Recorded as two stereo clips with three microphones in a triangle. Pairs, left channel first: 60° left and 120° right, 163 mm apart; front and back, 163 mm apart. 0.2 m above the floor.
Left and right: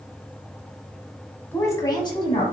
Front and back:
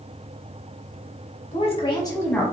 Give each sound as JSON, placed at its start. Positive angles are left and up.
{"t": 1.5, "sound": "a woman speaking", "azimuth_deg": -10, "distance_m": 1.3}